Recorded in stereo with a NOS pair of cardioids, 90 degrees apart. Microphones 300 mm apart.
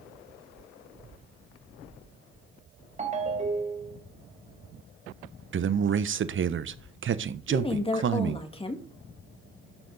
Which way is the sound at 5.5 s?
40° right.